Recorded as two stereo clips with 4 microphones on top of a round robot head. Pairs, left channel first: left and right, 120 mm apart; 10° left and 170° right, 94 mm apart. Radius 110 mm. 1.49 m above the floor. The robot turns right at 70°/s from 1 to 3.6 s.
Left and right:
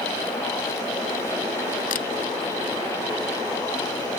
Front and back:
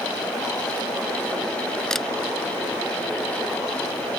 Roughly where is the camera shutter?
Left.